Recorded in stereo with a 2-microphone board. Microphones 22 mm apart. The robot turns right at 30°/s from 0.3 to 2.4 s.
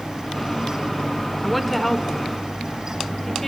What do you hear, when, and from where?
1.4 s a woman speaking: centre (ahead or behind), 1.2 m; by 3.5 s 10° left (ahead or behind), 1.2 m